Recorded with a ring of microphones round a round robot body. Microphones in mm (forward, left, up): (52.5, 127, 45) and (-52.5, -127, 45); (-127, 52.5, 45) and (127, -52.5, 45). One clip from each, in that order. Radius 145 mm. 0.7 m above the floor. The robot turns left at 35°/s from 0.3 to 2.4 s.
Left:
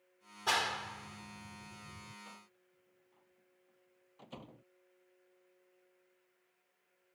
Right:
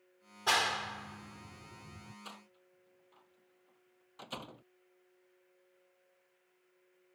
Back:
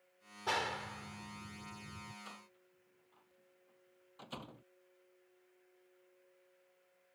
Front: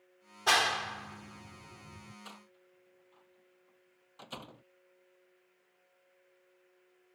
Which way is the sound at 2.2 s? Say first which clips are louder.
Right 4 dB, front 1 dB; 85° right.